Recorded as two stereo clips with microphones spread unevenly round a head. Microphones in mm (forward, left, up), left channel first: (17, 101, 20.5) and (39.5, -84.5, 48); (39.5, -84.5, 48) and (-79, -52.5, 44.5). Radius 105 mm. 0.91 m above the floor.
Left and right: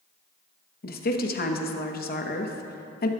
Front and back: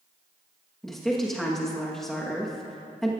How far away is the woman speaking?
About 1.1 m.